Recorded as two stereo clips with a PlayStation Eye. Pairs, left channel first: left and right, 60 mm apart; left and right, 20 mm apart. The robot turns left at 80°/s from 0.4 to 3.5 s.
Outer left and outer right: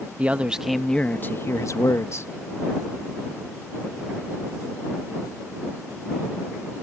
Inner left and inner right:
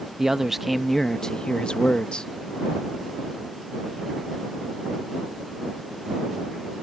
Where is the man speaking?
155° right; by 2.3 s 55° left.